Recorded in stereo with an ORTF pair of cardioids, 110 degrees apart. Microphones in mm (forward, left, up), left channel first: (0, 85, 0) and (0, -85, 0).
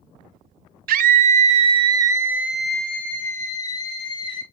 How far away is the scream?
About 1.1 m.